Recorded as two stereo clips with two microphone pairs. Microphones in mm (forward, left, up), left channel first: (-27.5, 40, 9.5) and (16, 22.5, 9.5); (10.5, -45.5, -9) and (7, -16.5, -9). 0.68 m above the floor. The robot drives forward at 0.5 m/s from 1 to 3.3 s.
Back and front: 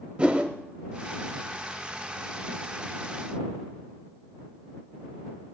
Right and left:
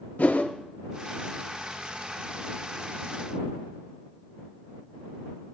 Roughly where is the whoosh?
Right.